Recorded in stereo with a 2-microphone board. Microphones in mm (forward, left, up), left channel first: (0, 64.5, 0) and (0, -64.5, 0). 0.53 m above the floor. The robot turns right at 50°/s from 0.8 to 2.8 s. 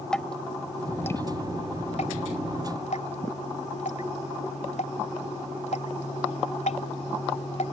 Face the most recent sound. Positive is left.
turn(degrees=65)  # may be behind; listen again after turning